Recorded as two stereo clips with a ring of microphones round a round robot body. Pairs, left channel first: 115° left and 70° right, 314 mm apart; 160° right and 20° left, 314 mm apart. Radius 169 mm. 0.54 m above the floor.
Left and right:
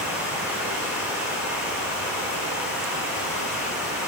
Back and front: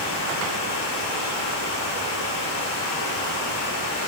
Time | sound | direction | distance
0.0 | running water | 155° right | 4.5 m